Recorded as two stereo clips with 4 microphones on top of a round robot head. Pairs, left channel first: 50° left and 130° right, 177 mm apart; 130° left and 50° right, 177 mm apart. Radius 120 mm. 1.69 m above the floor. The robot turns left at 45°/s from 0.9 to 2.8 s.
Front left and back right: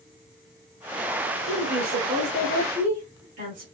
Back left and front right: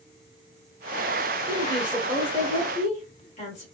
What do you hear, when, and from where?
1.5 s a woman speaking: 115° right, 1.2 m; by 3.6 s 175° right, 1.2 m